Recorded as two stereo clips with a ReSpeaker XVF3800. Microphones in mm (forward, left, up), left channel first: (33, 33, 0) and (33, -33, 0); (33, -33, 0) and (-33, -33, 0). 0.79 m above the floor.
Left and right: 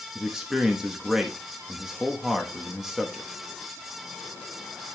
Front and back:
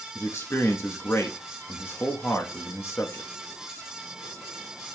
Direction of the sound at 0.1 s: 10° right.